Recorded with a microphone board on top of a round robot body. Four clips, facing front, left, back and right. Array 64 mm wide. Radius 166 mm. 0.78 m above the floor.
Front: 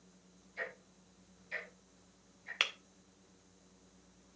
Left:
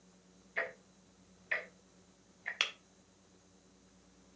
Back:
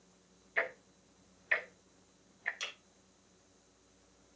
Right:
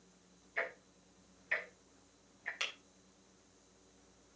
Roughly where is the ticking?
Behind.